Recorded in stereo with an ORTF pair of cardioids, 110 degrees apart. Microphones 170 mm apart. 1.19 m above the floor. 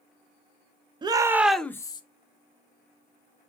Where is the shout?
25° right, 0.7 m; by 2.0 s 30° left, 0.6 m.